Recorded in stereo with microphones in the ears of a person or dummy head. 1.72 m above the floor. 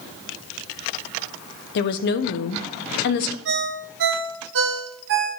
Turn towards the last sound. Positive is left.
turn(degrees=-65)  # may be behind; listen again after turning